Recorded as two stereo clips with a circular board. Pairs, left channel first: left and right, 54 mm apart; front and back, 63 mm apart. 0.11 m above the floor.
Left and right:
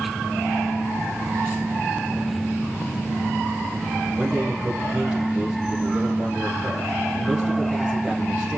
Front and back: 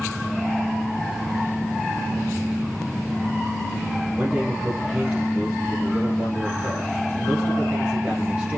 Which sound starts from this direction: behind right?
A man speaking, at 4.2 s.